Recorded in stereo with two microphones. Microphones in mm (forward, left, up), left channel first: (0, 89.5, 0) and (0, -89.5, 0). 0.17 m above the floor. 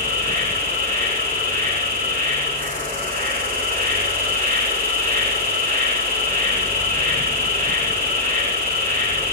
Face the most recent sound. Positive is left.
turn(degrees=-55)  # may be behind; listen again after turning